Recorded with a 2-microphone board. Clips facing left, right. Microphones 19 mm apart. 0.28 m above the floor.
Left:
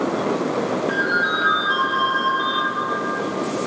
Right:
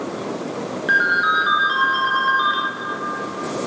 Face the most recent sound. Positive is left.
turn(degrees=-75)  # may be behind; listen again after turning